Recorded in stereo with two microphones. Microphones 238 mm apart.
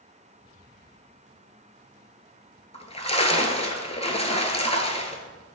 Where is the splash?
25° left (ahead or behind), 0.9 m.